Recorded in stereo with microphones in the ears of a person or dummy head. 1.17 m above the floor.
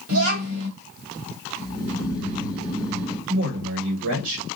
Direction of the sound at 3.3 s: 75° right (ahead or behind).